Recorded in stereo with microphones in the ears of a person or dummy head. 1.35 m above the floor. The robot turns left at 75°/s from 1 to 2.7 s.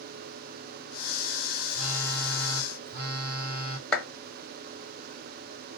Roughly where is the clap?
Centre.